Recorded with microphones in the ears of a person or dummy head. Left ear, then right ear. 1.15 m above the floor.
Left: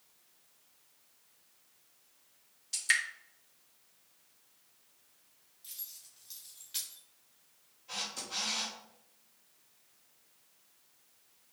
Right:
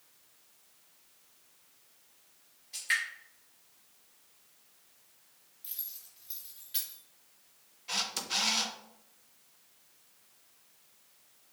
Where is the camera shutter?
45° right (ahead or behind), 0.8 m.